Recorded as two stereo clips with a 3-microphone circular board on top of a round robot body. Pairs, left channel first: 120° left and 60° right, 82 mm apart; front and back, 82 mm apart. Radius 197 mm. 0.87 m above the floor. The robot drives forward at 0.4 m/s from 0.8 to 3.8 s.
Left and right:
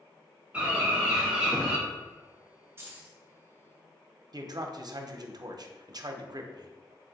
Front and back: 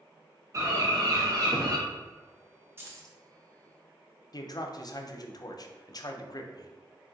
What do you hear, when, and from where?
0.5 s a bird: 135° right, 1.4 m; by 1.8 s 145° right, 1.7 m
2.8 s keys jangling: 120° right, 0.9 m; by 3.2 s 125° right, 0.9 m
4.3 s a man speaking: 30° right, 0.7 m